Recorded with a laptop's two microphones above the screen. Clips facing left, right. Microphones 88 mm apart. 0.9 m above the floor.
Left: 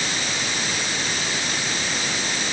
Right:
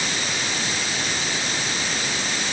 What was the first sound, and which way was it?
Only background noise.